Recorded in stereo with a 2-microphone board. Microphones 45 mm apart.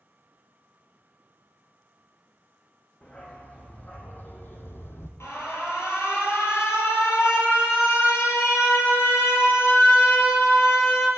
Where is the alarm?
75° left (ahead or behind), 5 m.